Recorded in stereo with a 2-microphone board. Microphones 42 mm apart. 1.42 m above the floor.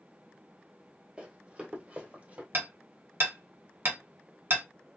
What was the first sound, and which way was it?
Running footsteps, 20° right (ahead or behind).